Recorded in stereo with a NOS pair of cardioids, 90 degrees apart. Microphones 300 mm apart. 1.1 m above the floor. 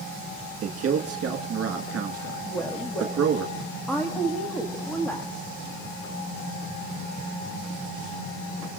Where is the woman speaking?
5° left, 1.6 m.